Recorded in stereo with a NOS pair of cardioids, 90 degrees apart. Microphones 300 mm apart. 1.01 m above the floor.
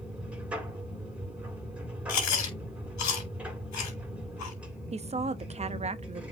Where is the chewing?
65° left, 5 m.